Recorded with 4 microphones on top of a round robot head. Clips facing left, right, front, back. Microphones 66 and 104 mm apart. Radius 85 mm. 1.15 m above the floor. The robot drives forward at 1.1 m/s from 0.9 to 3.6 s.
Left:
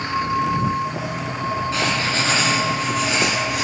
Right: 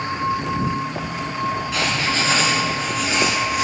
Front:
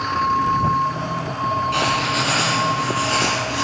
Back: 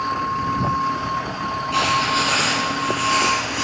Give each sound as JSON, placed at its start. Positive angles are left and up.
{"t": 1.7, "sound": "writing", "azimuth_deg": 40, "distance_m": 3.5}